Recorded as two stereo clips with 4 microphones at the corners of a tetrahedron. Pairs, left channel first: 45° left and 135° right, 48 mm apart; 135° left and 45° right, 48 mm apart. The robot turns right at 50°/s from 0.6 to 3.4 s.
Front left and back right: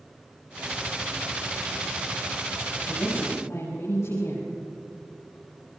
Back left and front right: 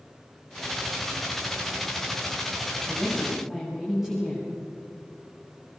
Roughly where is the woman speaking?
Ahead.